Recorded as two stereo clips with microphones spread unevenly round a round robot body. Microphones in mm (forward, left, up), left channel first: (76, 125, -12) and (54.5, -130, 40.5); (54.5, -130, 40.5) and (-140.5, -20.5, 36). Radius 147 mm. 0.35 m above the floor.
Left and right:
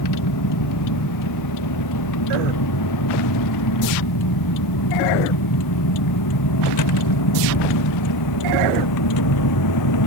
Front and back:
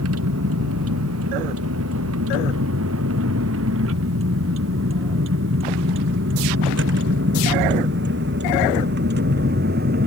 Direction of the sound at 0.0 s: 110° left.